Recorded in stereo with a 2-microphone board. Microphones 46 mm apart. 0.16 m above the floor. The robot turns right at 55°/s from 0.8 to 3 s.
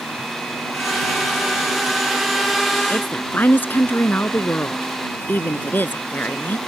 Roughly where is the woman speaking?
Left.